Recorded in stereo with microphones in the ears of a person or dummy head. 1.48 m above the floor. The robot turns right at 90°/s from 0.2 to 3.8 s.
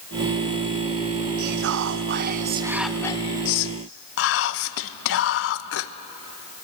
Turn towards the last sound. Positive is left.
turn(degrees=85)